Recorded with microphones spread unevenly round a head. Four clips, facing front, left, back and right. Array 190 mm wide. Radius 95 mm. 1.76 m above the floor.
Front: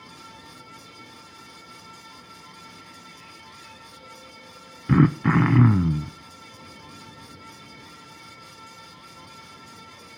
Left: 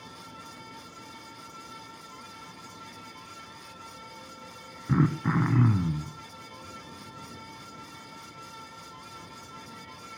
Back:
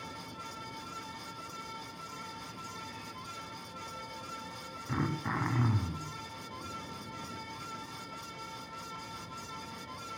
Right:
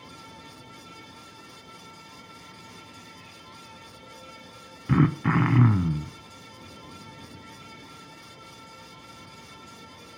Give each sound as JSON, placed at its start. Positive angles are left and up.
{"t": 4.9, "sound": "throat clearing", "azimuth_deg": 0, "distance_m": 1.3}